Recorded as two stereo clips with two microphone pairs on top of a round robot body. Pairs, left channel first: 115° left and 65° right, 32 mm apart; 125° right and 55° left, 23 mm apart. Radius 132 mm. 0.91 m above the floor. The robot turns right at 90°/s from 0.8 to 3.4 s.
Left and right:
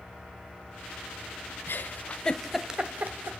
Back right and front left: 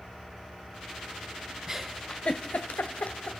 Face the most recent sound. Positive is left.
turn(degrees=-70)